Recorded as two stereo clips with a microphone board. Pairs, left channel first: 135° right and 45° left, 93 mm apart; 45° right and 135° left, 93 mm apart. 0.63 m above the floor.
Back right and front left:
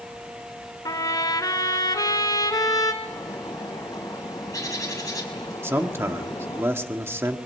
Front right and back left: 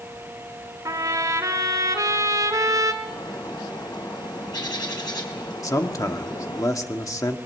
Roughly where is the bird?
Right.